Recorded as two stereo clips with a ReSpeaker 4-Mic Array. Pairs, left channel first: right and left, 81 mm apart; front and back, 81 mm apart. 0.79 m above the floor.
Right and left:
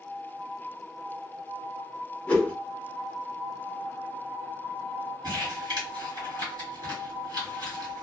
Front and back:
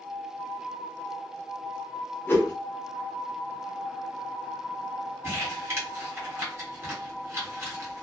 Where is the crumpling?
120° left, 1.5 m.